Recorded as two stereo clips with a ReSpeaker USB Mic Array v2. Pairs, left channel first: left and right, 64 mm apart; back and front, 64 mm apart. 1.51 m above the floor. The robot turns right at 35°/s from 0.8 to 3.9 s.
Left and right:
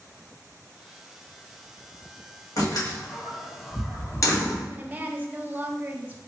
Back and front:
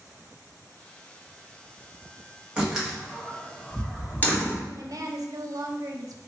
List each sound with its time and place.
2.6 s a door slam: 75° left, 1.3 m; by 4.6 s 120° left, 1.3 m
4.7 s a woman speaking: 25° right, 0.5 m